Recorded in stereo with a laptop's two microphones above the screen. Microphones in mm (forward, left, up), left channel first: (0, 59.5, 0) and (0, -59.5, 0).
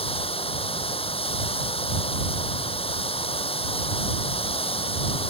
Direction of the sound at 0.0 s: 50° left (ahead or behind).